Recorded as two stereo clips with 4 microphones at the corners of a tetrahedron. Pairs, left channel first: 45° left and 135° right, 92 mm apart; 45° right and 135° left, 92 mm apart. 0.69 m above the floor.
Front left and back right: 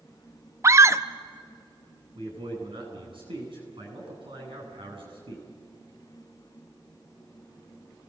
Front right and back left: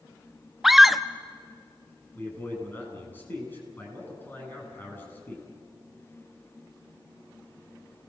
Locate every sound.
0.6 s a scream: 140° right, 0.5 m
2.1 s a man speaking: 110° right, 10 m